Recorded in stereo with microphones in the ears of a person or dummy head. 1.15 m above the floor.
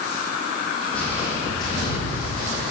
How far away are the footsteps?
About 3 m.